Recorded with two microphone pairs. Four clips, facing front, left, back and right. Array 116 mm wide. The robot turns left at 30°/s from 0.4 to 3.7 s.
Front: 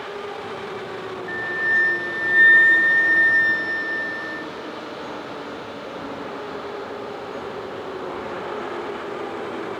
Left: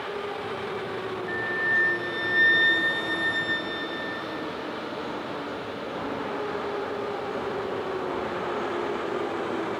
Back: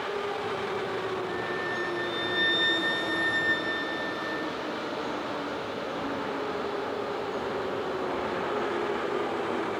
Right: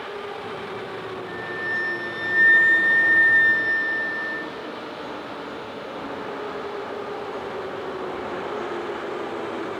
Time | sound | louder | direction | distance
1.3 | a flute | left 3 dB, front 6 dB | 20° left | 0.7 m